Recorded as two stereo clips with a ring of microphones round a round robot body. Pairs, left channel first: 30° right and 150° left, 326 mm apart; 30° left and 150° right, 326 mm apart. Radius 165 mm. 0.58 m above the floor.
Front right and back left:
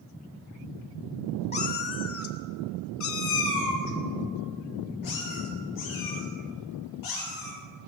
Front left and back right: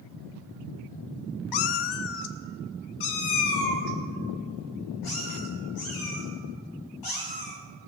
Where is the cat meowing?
40° left, 0.5 m; by 7.5 s straight ahead, 4 m.